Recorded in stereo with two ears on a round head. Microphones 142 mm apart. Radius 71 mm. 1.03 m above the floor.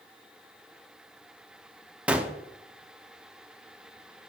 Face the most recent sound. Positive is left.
turn(degrees=-5)  # may be behind; listen again after turning